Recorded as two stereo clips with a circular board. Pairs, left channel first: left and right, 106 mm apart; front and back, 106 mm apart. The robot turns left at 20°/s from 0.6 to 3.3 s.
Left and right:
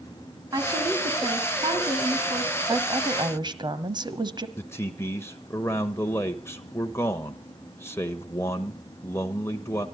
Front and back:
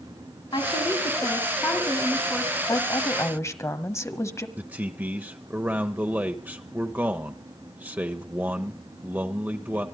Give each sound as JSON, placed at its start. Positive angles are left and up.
{"t": 0.5, "sound": "a woman speaking", "azimuth_deg": -40, "distance_m": 3.0}
{"t": 2.7, "sound": "a woman speaking", "azimuth_deg": -45, "distance_m": 1.6}
{"t": 4.6, "sound": "a man speaking", "azimuth_deg": 125, "distance_m": 1.0}